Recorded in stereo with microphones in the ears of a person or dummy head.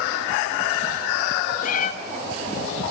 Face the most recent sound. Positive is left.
turn(degrees=50)  # may be behind; listen again after turning